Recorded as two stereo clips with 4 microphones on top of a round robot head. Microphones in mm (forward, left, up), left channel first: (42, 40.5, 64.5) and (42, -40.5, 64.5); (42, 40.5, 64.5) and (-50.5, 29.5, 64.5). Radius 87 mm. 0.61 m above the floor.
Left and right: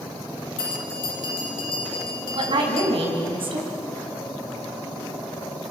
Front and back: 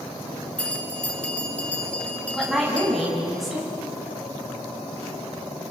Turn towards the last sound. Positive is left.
turn(degrees=-85)